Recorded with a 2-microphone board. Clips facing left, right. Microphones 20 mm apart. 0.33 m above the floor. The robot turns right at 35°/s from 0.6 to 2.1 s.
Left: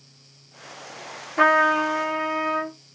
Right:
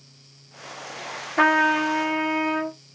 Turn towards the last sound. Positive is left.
turn(degrees=-40)  # may be behind; listen again after turning